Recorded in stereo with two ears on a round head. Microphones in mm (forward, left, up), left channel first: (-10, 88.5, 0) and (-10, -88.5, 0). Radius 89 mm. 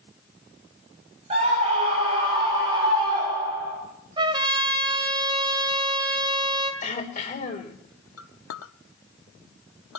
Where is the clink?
80° left, 0.9 m.